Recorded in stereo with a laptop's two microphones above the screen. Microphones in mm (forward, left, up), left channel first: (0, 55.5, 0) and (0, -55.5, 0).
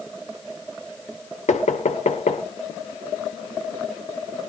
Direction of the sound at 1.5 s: 80° left.